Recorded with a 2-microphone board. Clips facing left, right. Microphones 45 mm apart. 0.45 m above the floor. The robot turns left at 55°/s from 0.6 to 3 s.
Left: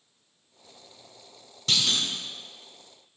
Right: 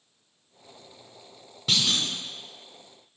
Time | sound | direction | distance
1.7 | a clunk | 10° right (ahead or behind) | 1.6 m